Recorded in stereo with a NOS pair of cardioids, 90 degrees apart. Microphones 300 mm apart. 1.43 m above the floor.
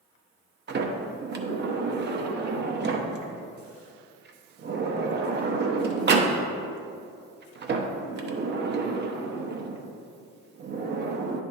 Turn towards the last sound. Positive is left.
turn(degrees=-35)